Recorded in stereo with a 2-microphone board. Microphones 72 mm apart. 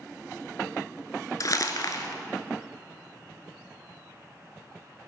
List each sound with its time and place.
1.4 s crumpling: 55° left (ahead or behind), 0.8 m